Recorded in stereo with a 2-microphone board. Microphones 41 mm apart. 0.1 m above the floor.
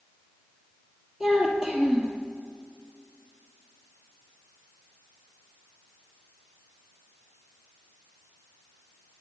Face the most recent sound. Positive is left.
turn(degrees=-5)  # may be behind; listen again after turning